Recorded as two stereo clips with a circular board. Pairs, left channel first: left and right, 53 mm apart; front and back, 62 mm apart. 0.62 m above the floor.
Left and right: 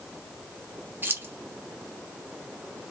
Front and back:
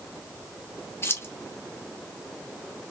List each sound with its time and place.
1.0 s keys jangling: 45° right, 1.0 m